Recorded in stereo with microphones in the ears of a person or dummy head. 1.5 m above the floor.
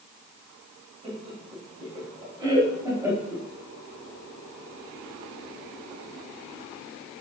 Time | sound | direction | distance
1.0 | laughter | 35° right (ahead or behind) | 3 m